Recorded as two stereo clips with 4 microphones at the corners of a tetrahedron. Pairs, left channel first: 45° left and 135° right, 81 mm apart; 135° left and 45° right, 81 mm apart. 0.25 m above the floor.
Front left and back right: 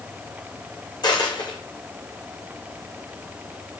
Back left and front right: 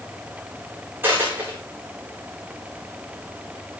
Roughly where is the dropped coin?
Ahead.